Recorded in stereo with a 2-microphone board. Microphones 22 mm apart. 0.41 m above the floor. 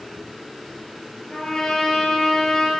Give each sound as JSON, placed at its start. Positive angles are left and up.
{"t": 1.3, "sound": "a trumpet", "side_deg": 25, "distance_m": 2.0}